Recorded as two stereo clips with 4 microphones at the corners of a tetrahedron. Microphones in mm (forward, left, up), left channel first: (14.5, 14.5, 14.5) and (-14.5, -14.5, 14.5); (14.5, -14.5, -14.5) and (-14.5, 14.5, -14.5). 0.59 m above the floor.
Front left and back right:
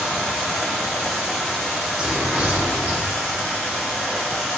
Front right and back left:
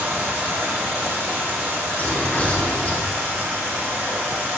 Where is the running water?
135° left, 1.3 m.